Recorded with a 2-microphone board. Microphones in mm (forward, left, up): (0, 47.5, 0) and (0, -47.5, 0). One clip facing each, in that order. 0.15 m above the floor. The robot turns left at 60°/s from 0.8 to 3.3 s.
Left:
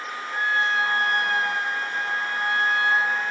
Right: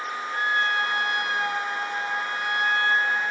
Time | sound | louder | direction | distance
0.3 | a trumpet | left 2 dB | 145° left | 1.2 m